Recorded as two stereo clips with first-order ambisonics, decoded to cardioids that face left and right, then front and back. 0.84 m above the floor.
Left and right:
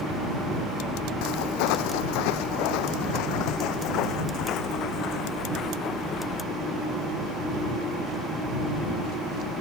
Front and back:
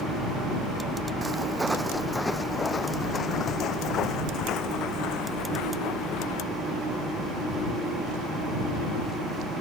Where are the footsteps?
105° left; by 6.4 s 30° left.